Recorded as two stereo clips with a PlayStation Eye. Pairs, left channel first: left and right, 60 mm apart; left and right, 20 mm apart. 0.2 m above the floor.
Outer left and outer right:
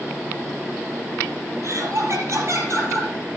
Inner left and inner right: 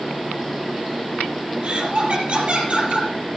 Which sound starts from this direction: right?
Laughter, at 1.6 s.